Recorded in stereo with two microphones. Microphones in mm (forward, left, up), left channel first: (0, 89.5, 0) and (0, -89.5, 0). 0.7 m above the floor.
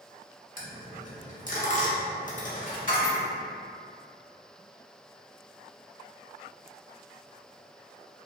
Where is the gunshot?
No gunshot in this recording.